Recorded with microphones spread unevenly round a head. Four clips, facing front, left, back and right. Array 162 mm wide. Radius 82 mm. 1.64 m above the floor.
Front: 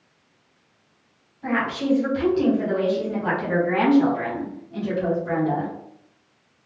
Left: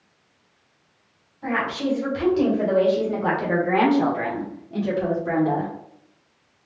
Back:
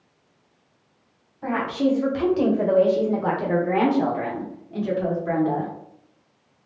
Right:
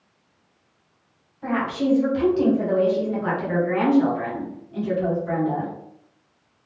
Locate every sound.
1.4 s a woman speaking: 175° right, 1.9 m; by 5.7 s 95° left, 2 m